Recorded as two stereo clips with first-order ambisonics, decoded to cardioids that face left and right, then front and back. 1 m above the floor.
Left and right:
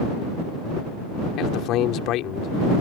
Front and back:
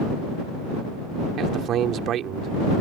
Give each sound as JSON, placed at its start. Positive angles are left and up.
{"t": 1.4, "sound": "a man speaking", "azimuth_deg": 130}